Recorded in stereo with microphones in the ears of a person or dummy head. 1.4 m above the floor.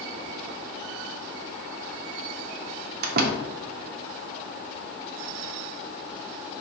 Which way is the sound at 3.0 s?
55° right (ahead or behind).